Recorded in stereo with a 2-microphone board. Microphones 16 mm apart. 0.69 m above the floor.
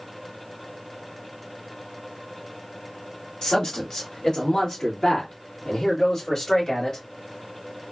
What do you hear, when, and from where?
3.4 s a man speaking: 50° left (ahead or behind), 1.9 m; by 7.0 s 35° left (ahead or behind), 2 m